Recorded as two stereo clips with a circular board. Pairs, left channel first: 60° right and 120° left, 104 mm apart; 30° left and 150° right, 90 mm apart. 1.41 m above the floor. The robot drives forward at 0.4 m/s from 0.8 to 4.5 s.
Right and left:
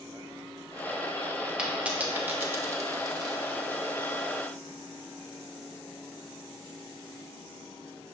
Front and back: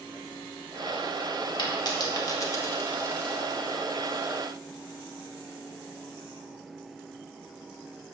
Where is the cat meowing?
No cat meowing in this recording.